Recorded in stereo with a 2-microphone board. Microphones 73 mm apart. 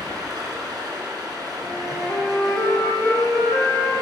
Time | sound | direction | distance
0.0 | running water | 60° right (ahead or behind) | 2 m
1.6 | a flute | 30° left (ahead or behind) | 1.4 m